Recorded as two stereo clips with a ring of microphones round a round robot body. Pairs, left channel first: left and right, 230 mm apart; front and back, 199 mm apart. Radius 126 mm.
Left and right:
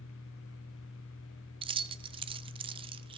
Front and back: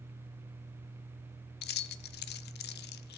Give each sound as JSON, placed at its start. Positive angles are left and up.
{"t": 1.6, "sound": "keys jangling", "azimuth_deg": -25, "distance_m": 0.5}